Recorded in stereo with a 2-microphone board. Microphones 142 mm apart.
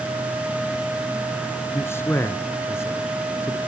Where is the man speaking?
20° left (ahead or behind), 1.0 m.